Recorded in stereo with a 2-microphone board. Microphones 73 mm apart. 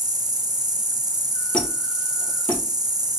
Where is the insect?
75° right (ahead or behind), 0.9 m.